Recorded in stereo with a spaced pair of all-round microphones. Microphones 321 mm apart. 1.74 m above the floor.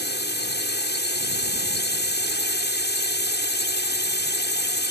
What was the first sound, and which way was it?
A drone, 30° left (ahead or behind).